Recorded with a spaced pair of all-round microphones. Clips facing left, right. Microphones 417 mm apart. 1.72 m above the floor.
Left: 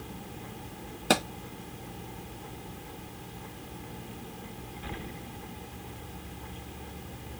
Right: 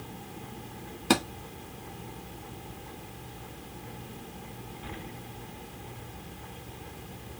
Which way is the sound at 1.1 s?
10° right (ahead or behind).